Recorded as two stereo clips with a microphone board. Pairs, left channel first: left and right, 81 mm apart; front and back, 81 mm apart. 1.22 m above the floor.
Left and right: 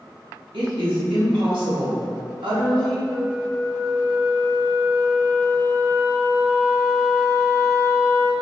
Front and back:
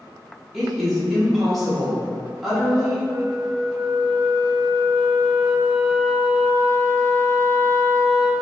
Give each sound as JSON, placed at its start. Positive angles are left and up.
{"t": 0.5, "sound": "a woman speaking", "azimuth_deg": -90, "distance_m": 1.6}
{"t": 3.1, "sound": "a flute", "azimuth_deg": -140, "distance_m": 1.0}